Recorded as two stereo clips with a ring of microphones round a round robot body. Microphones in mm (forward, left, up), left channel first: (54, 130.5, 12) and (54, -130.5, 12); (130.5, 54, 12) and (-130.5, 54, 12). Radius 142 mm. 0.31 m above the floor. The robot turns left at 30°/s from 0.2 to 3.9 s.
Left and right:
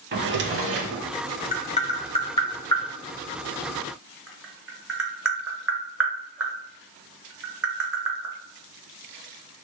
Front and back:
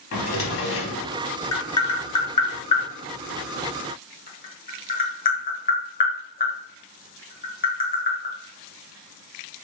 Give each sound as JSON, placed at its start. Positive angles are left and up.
{"t": 0.1, "sound": "a drawer", "azimuth_deg": -40, "distance_m": 0.6}
{"t": 1.5, "sound": "tapping", "azimuth_deg": 65, "distance_m": 0.9}